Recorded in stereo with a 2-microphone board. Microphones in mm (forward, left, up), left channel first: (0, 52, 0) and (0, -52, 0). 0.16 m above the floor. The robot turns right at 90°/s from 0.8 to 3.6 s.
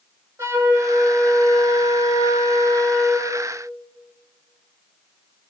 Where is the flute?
30° right, 7 m; by 3.3 s 165° right, 7 m.